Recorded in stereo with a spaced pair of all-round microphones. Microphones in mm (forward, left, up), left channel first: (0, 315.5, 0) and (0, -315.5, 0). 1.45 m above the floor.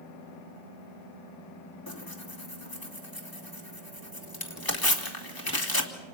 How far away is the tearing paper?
About 2.5 m.